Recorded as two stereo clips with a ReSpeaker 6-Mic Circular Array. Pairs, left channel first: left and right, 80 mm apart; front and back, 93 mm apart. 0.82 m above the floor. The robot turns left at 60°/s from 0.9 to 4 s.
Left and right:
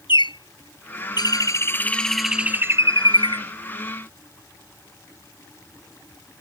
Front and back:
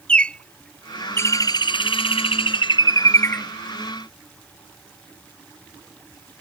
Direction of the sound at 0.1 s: 80° left.